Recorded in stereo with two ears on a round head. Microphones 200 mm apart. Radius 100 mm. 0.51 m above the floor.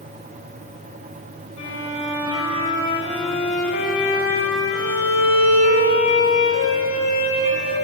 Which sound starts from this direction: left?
A violin, at 1.6 s.